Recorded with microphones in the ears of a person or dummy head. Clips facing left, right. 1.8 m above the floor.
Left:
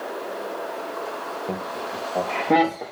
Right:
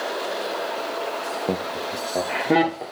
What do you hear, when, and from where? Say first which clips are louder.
1.5 s laughter: right 4 dB; 65° right (ahead or behind), 0.9 m; by 2.8 s 5° left (ahead or behind), 1.6 m